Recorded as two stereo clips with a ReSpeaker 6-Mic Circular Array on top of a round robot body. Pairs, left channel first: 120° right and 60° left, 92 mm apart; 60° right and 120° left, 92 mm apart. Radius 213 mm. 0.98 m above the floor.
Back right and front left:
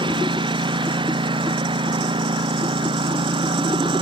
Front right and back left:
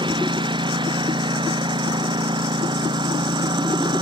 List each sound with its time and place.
0.0 s a lawn mower: 90° left; by 4.0 s 85° left